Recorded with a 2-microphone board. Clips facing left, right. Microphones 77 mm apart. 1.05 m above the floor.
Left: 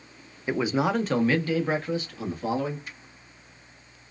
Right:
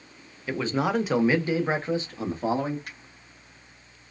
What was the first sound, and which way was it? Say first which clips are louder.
A man speaking: left 1 dB; 20° left (ahead or behind).